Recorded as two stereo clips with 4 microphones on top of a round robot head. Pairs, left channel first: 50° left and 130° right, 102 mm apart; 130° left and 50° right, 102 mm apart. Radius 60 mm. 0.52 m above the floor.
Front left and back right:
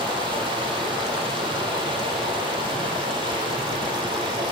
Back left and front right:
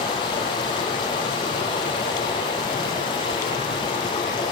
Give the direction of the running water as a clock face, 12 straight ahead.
6 o'clock.